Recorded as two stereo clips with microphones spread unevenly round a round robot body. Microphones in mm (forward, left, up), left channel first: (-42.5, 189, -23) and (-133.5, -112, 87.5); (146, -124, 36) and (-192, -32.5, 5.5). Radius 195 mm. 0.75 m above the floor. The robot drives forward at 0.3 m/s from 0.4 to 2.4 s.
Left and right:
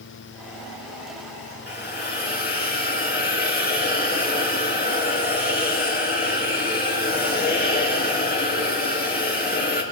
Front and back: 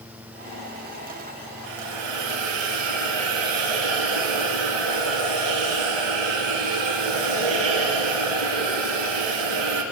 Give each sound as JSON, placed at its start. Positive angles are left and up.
{"t": 1.7, "sound": "a hiss", "azimuth_deg": 135, "distance_m": 4.0}